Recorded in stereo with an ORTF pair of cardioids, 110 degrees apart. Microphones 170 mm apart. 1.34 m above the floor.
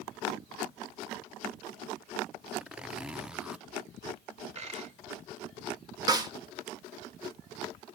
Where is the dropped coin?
40° right, 2.5 m.